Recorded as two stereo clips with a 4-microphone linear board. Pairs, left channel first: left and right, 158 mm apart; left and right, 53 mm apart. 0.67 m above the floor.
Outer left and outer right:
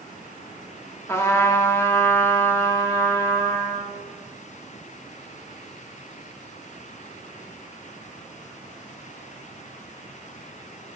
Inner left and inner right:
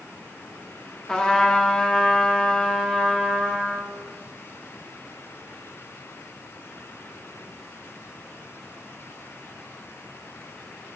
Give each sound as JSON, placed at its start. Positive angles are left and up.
{"t": 1.1, "sound": "a trumpet", "side_deg": 15, "distance_m": 1.1}